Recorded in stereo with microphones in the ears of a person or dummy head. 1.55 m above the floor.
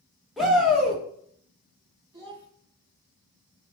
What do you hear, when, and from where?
0.4 s a shout: centre (ahead or behind), 0.9 m
2.1 s a child speaking: 15° right (ahead or behind), 1.5 m